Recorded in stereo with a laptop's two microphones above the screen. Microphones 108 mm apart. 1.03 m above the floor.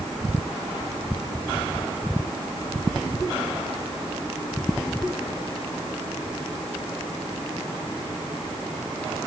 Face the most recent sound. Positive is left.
No sound to turn to.